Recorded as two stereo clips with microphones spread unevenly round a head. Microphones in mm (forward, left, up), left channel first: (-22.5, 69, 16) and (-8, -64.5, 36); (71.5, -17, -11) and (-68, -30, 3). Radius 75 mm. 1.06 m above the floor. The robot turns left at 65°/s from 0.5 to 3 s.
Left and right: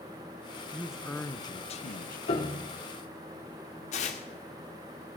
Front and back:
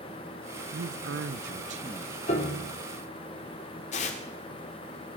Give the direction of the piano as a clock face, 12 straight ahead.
10 o'clock.